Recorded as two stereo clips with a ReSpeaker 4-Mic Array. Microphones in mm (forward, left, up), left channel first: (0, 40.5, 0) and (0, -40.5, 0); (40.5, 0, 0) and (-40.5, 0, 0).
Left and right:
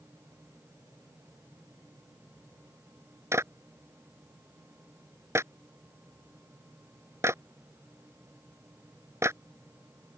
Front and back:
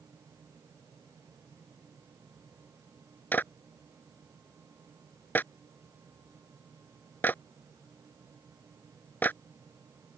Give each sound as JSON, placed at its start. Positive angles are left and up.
{"t": 3.3, "sound": "a clap", "azimuth_deg": -55}